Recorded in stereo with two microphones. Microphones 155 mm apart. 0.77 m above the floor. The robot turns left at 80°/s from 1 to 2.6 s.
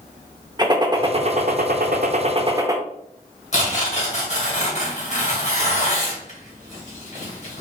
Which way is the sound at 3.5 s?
50° left (ahead or behind).